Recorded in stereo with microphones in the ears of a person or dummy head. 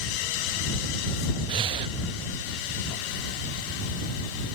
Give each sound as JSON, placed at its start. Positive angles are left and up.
{"t": 1.5, "sound": "breathing", "side_deg": -25}